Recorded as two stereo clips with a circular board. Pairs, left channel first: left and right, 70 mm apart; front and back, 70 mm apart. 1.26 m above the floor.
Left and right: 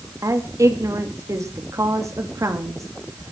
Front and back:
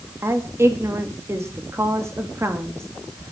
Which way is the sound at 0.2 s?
130° right.